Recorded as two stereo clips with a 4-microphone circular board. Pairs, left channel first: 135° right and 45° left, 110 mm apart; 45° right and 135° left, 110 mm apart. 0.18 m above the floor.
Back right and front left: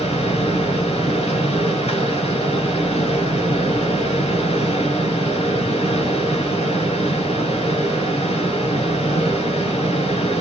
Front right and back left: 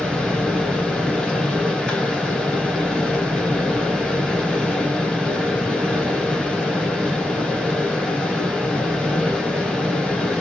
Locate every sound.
0.0 s running water: 130° right, 2 m